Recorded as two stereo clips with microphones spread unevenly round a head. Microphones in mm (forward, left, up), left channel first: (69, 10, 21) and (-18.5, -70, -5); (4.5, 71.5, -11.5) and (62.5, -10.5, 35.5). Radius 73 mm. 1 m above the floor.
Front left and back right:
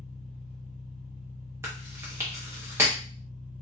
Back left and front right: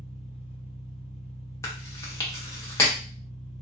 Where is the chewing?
160° left, 0.9 m.